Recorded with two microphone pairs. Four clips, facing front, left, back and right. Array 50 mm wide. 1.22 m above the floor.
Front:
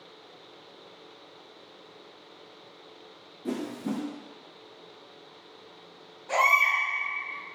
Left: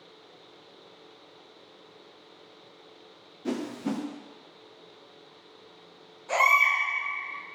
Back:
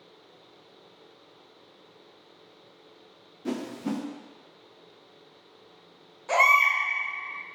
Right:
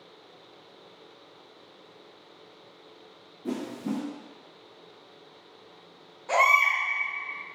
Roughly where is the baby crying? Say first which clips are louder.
Even, back 2 dB; behind.